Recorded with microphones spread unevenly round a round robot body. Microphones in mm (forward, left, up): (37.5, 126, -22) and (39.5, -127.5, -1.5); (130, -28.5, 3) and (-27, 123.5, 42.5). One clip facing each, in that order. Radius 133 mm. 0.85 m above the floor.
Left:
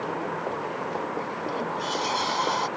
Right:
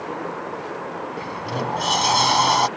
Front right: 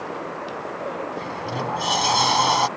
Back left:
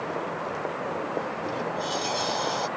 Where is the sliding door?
75° right.